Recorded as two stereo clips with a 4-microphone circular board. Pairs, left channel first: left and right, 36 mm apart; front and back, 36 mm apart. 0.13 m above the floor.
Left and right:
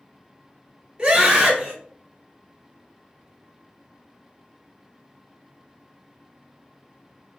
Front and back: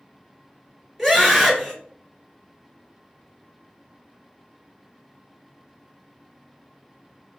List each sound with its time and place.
1.0 s a scream: 95° right, 1.0 m